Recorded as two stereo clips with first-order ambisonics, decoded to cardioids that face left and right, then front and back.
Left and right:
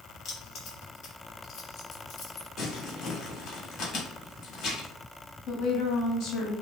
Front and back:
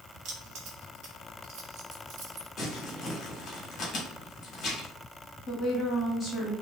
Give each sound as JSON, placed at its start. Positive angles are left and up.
{"t": 0.2, "sound": "keys jangling", "azimuth_deg": 150, "distance_m": 1.1}
{"t": 2.6, "sound": "crumpling", "azimuth_deg": 45, "distance_m": 1.1}
{"t": 5.5, "sound": "a woman speaking", "azimuth_deg": 65, "distance_m": 1.3}